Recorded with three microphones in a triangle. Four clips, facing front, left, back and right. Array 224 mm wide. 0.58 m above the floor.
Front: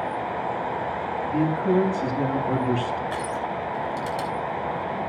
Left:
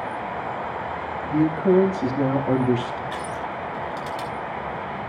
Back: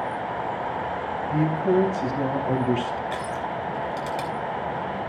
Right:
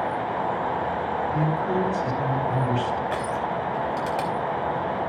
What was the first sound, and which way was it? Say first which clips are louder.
A man speaking: left 10 dB, even; 110° left.